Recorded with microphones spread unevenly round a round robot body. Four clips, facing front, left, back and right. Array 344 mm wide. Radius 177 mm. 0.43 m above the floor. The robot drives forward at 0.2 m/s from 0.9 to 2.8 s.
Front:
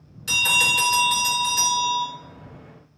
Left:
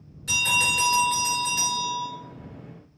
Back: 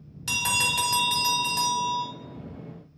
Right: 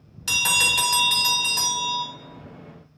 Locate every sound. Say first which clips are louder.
0.3 s a bell: even, front 3 dB; 120° right, 0.9 m; by 2.0 s 130° right, 1.1 m